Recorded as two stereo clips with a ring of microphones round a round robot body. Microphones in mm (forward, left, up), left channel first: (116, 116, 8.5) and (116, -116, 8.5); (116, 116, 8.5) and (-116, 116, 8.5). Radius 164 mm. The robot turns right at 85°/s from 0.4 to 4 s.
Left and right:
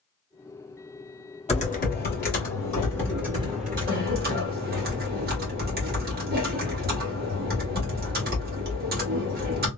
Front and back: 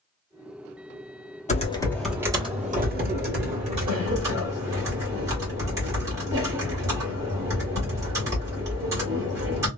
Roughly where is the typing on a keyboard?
Ahead left.